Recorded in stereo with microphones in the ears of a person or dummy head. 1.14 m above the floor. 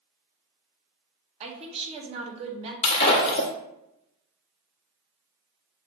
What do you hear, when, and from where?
1.4 s a woman speaking: 30° right (ahead or behind), 0.6 m
2.8 s breaking glass: 35° left (ahead or behind), 0.9 m